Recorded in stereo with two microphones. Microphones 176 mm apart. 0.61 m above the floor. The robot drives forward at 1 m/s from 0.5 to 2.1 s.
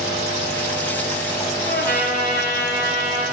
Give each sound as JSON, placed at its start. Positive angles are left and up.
{"t": 1.7, "sound": "a trumpet", "side_deg": 60, "distance_m": 3.5}